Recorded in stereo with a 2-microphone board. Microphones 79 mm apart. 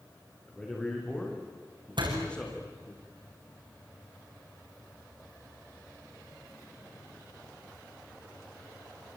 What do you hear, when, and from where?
0.5 s a man speaking: 15° left (ahead or behind), 6 m
2.0 s a door slam: 75° right (ahead or behind), 6 m